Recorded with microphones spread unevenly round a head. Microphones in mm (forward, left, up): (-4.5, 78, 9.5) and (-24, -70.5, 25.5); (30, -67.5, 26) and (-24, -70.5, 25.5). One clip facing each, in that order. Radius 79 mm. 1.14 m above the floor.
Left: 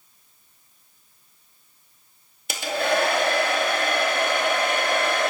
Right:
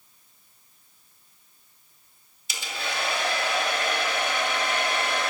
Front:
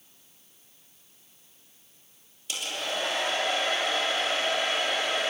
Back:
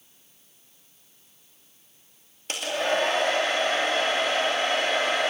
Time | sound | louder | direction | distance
2.5 | a hair dryer | left 11 dB, back 7 dB | 120° left | 2.5 m